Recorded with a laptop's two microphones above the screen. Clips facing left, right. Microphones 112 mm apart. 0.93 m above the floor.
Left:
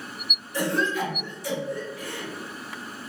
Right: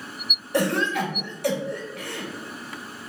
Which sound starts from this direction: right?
A cough, at 0.5 s.